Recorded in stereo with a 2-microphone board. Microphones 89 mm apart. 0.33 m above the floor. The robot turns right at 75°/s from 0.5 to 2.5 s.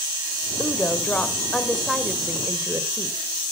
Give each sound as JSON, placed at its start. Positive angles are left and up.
{"t": 0.6, "sound": "a woman speaking", "side_deg": 25, "distance_m": 1.2}